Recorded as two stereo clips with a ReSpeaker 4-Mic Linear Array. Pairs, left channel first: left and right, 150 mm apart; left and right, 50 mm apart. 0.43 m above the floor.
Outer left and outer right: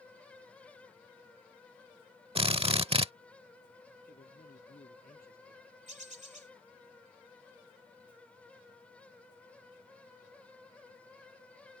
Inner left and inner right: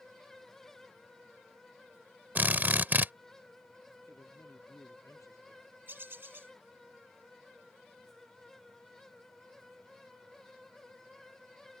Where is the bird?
50° right (ahead or behind).